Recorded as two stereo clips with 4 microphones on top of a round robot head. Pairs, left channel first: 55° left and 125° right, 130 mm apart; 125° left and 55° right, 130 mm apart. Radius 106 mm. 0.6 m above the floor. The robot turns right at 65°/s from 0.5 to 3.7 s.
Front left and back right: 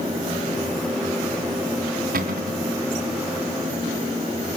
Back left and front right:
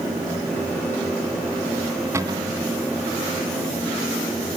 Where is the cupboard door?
125° right, 2.5 m; by 2.6 s 95° right, 2.5 m.